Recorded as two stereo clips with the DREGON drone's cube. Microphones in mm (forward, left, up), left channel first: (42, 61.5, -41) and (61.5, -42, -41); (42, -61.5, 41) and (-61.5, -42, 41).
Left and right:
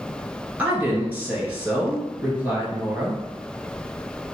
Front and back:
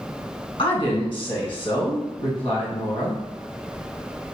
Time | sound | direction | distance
0.6 | a woman speaking | 10° right | 2 m